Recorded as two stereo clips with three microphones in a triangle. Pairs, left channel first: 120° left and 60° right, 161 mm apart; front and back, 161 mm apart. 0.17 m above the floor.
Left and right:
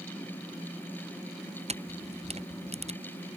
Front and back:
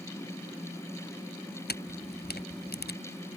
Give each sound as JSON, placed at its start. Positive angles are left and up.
{"t": 1.7, "sound": "a camera shutter", "azimuth_deg": -10}